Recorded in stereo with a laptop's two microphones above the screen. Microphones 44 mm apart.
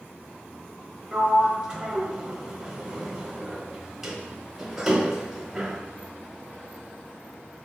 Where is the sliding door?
5° right (ahead or behind), 0.9 m.